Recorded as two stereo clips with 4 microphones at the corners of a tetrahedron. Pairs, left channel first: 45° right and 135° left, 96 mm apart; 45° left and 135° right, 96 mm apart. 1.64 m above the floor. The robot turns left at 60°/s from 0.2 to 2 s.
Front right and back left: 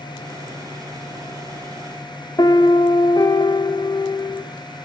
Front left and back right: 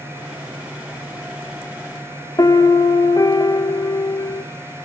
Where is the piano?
Straight ahead, 0.6 m.